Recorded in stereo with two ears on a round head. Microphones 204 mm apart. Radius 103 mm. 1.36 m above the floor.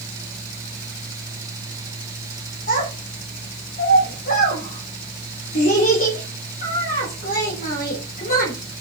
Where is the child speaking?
40° left (ahead or behind), 2.5 m.